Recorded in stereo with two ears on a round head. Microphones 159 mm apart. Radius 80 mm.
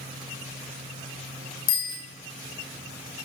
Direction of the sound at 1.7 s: 85° left.